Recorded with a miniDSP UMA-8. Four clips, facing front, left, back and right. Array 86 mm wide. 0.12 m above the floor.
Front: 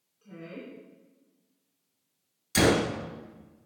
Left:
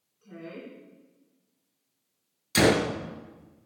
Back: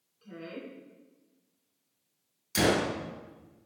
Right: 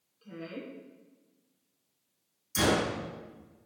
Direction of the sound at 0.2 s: 130° right.